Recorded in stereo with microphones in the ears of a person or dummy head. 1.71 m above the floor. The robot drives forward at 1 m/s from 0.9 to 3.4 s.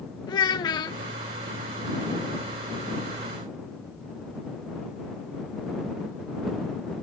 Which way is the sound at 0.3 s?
25° left (ahead or behind).